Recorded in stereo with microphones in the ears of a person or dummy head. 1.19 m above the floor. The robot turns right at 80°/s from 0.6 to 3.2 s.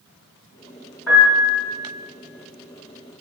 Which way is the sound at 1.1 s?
10° left (ahead or behind).